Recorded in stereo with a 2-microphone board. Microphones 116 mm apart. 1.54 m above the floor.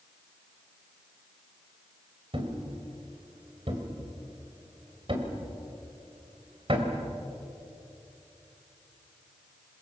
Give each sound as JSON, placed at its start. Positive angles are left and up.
{"t": 2.3, "sound": "a thud", "side_deg": -50, "distance_m": 3.0}